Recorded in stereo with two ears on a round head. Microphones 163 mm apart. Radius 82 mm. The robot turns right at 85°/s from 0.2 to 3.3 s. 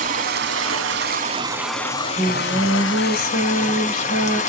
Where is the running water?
130° right, 1.0 m; by 4.5 s 135° left, 1.0 m.